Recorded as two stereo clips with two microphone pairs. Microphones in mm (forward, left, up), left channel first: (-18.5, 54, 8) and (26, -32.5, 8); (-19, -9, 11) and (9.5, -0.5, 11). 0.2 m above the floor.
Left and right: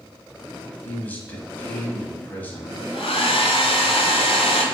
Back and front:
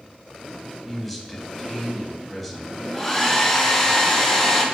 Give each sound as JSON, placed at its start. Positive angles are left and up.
{"t": 0.8, "sound": "a man speaking", "azimuth_deg": 110, "distance_m": 1.0}
{"t": 2.9, "sound": "a hair dryer", "azimuth_deg": 120, "distance_m": 1.0}